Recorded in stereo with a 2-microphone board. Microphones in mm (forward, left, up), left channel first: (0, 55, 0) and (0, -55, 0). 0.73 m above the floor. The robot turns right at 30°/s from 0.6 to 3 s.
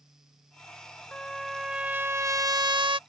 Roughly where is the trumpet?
Behind.